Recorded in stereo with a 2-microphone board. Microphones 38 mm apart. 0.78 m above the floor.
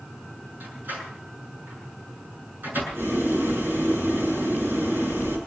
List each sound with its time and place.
0.6 s a door slam: 55° right (ahead or behind), 7.5 m
2.9 s boiling: 75° right (ahead or behind), 8 m